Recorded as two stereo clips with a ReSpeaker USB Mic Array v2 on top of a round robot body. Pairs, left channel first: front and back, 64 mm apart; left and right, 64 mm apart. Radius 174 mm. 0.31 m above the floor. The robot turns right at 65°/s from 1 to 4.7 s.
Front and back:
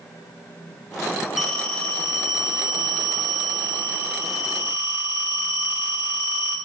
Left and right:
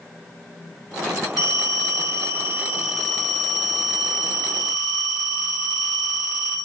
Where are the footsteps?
No footsteps in this recording.